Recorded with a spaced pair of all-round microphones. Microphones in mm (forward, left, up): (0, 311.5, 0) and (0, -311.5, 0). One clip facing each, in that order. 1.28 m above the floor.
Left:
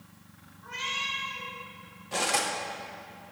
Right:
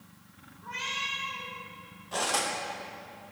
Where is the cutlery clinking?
50° left (ahead or behind), 0.8 m.